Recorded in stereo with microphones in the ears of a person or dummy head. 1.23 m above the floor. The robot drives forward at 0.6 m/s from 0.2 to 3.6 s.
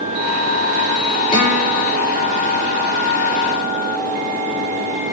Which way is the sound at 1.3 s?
30° left (ahead or behind).